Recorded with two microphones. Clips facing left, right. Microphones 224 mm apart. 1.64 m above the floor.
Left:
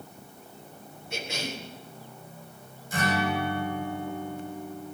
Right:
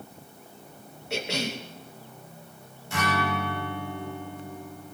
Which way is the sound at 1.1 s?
75° right (ahead or behind).